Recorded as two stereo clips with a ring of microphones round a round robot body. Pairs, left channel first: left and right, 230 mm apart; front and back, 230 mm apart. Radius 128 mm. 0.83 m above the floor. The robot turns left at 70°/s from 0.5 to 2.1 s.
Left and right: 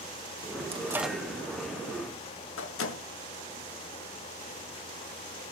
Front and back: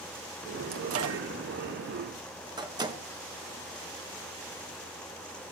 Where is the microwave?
155° right, 1.5 m; by 3.0 s 110° left, 1.5 m.